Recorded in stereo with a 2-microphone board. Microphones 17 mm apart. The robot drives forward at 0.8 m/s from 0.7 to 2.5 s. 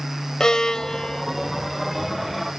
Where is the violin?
50° left (ahead or behind); by 1.2 s 40° left (ahead or behind).